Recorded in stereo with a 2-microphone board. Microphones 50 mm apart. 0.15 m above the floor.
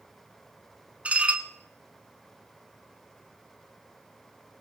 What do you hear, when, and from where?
1.1 s dishes clattering: 30° right (ahead or behind), 0.9 m